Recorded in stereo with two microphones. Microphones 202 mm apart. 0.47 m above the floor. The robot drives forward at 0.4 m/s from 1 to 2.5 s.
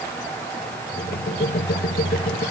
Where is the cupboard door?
No cupboard door in this recording.